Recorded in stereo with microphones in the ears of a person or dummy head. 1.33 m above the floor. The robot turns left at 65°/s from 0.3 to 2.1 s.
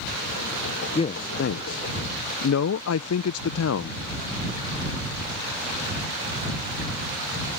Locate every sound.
0.9 s a man speaking: 25° left (ahead or behind); by 4.0 s 75° left (ahead or behind)